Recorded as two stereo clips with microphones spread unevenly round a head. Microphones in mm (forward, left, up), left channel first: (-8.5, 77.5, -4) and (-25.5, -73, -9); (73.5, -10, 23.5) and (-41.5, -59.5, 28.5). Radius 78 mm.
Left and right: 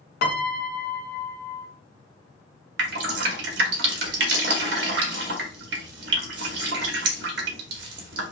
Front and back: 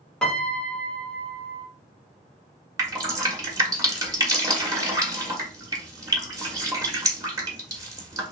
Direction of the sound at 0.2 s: 110° left.